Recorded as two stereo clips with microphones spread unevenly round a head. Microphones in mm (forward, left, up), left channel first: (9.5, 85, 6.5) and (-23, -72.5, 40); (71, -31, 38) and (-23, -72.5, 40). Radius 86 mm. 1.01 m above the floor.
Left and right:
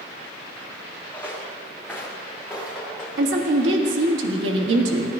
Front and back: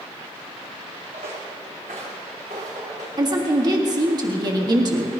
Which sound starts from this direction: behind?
Footsteps, at 1.1 s.